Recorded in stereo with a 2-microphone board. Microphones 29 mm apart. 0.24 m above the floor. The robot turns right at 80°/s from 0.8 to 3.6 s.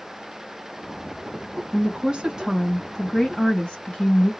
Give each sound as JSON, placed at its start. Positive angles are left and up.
{"t": 1.7, "sound": "a woman speaking", "azimuth_deg": -85, "distance_m": 1.8}